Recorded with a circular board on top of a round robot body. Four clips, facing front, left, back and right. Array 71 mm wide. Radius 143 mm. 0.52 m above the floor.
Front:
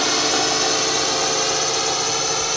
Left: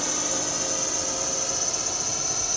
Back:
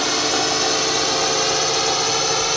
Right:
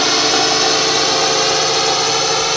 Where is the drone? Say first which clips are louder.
Right 15 dB, even; 85° right; by 2.6 s 100° right.